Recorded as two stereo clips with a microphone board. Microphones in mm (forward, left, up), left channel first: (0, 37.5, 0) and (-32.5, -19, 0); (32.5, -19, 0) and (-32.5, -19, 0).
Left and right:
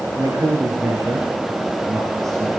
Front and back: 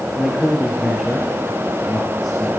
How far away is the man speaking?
About 5 m.